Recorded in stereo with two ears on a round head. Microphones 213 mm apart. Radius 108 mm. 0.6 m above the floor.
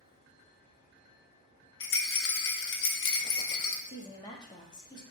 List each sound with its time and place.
1.8 s a rattle: 60° left (ahead or behind), 0.6 m
3.9 s a woman speaking: 20° left (ahead or behind), 0.6 m